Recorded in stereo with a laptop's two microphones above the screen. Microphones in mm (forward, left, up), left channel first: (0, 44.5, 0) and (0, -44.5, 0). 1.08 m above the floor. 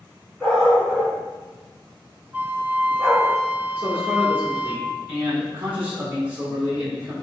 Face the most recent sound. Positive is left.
turn(degrees=-20)  # may be behind; listen again after turning